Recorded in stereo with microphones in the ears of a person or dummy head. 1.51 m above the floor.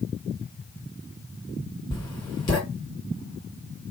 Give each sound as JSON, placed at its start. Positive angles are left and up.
{"t": 1.9, "sound": "writing", "side_deg": 20, "distance_m": 1.3}